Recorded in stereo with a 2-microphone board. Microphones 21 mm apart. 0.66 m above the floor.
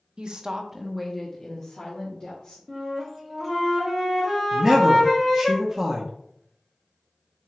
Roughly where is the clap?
No clap in this recording.